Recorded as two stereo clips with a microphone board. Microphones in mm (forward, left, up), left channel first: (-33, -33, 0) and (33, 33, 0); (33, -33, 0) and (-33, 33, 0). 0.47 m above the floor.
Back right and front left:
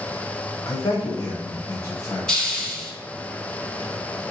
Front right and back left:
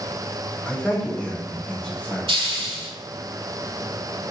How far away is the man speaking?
About 1.0 m.